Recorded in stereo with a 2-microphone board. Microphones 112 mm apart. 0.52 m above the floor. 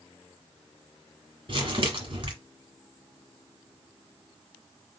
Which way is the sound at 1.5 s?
50° right (ahead or behind).